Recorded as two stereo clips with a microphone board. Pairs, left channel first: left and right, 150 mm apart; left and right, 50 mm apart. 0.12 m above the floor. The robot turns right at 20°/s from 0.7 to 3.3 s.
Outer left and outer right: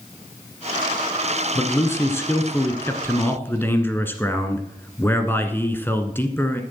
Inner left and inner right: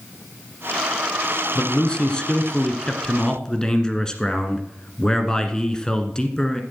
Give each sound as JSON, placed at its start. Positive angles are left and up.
{"t": 1.6, "sound": "a man speaking", "side_deg": 20, "distance_m": 1.2}